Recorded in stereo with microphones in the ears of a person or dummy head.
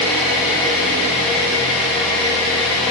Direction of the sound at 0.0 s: 5° left (ahead or behind).